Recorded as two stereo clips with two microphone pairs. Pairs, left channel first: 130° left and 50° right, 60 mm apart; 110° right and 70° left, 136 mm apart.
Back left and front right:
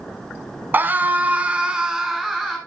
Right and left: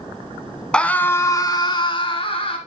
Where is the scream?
30° right, 1.1 m; by 2.6 s 140° right, 1.6 m.